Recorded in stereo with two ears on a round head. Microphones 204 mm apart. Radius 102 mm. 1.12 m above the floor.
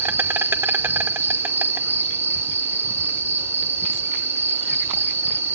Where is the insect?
10° right (ahead or behind), 0.7 m.